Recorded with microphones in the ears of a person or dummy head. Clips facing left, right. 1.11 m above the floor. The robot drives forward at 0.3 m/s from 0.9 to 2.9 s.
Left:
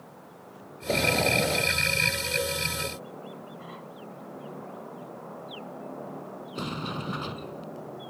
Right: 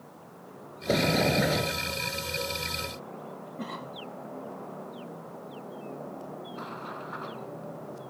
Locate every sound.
0.9 s a sliding door: 15° right (ahead or behind)
3.6 s a cough: 60° right (ahead or behind)
6.5 s a sliding door: 50° left (ahead or behind)